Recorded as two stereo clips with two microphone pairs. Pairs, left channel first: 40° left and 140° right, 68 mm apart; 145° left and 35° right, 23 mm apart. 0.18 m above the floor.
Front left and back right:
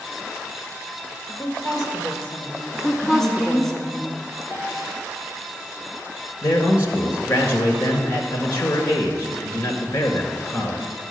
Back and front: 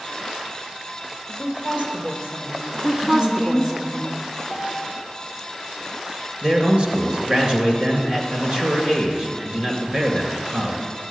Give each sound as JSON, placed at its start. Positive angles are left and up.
{"t": 1.3, "sound": "a woman speaking", "azimuth_deg": -5, "distance_m": 3.5}
{"t": 2.7, "sound": "a woman speaking", "azimuth_deg": -40, "distance_m": 2.0}
{"t": 4.5, "sound": "a piano", "azimuth_deg": -90, "distance_m": 2.5}
{"t": 6.4, "sound": "a man speaking", "azimuth_deg": -5, "distance_m": 2.5}